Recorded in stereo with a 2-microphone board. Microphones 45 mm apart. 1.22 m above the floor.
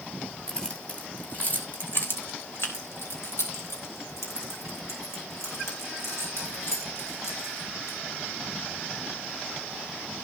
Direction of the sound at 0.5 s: 15° left (ahead or behind).